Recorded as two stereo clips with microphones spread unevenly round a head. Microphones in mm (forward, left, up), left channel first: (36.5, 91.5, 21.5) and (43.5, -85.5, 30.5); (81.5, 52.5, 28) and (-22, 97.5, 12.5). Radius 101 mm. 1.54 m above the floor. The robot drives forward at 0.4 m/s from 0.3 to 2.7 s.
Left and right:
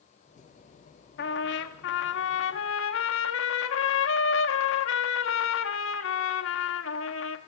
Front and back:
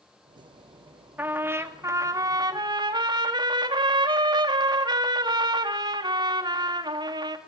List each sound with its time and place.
1.2 s a trumpet: 80° left, 1.5 m; by 7.4 s 105° left, 1.6 m